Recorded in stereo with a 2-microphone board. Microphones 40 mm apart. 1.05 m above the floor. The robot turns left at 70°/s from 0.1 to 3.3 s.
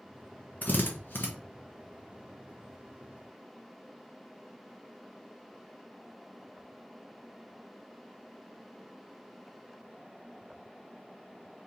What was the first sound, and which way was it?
A drill, 45° left (ahead or behind).